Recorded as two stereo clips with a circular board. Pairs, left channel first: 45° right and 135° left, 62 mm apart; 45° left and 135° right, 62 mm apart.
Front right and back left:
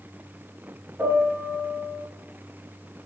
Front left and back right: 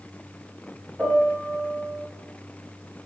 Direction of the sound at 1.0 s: 165° left.